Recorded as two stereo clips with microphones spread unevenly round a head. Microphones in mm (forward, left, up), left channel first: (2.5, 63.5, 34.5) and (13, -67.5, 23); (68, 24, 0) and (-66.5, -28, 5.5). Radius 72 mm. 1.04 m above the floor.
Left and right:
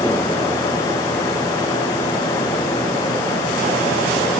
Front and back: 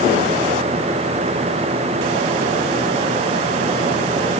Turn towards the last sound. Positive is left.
No sound to turn to.